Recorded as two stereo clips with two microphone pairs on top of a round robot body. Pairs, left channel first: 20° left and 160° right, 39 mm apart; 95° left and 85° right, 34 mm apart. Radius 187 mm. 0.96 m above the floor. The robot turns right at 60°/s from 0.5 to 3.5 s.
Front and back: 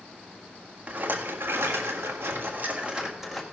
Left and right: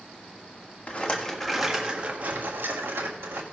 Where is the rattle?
140° left, 1.5 m; by 3.4 s 65° right, 1.5 m.